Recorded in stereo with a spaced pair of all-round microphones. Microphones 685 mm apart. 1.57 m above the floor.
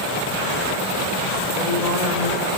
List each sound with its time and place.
1.6 s a woman speaking: 80° left, 6.5 m